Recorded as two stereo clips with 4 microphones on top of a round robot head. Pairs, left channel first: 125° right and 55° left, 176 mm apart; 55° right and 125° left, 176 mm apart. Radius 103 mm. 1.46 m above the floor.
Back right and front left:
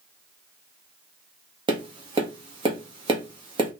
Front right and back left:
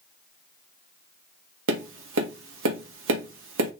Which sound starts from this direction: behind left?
Tapping, at 1.7 s.